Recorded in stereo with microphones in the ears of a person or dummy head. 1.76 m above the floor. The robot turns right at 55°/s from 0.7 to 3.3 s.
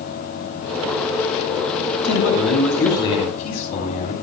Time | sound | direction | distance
2.0 | a man speaking | 65° left | 7.5 m